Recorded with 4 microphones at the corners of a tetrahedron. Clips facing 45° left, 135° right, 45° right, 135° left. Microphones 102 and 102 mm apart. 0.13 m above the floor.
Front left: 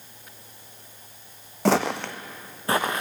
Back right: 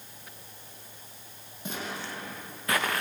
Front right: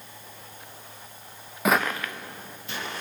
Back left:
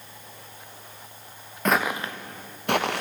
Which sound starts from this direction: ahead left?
Footsteps, at 1.6 s.